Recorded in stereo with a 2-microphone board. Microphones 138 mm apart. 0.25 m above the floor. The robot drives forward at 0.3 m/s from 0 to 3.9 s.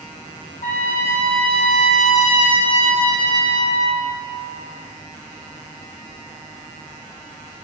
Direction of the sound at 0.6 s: 75° left (ahead or behind).